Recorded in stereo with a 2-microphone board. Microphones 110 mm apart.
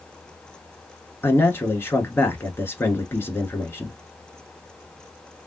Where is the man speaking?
20° left (ahead or behind), 1.2 m.